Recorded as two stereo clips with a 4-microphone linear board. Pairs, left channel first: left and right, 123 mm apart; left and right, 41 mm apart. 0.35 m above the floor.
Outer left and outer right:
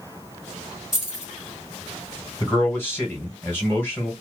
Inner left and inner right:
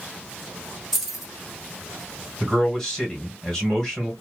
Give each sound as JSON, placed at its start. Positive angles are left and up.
{"t": 0.9, "sound": "keys jangling", "side_deg": -5, "distance_m": 1.3}
{"t": 2.4, "sound": "a man speaking", "side_deg": 15, "distance_m": 1.4}